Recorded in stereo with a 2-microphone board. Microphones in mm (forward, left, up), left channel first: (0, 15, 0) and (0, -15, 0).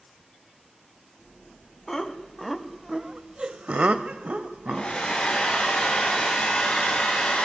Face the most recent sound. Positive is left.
turn(degrees=30)  # may be behind; listen again after turning